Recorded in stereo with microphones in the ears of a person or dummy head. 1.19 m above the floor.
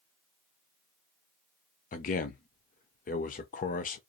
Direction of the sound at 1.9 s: 40° left (ahead or behind).